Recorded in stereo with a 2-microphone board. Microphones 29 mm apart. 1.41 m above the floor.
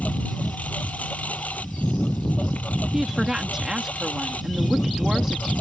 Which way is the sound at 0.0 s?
65° left (ahead or behind).